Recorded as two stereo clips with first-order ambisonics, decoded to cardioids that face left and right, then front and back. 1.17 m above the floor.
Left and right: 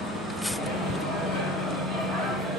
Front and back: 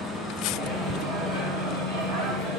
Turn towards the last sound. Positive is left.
turn(degrees=175)